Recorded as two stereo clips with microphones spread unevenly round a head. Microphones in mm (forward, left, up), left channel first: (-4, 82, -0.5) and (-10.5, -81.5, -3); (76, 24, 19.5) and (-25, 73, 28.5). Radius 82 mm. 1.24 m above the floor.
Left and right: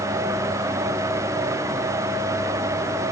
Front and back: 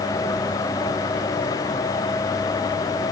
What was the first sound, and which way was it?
Only background noise.